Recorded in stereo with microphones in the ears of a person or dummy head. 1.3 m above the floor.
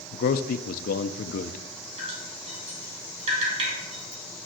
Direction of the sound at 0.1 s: 50° left (ahead or behind).